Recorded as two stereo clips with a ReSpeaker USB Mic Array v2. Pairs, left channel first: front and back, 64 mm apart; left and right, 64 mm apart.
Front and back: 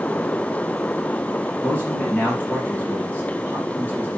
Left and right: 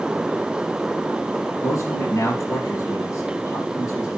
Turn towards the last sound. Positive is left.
turn(degrees=65)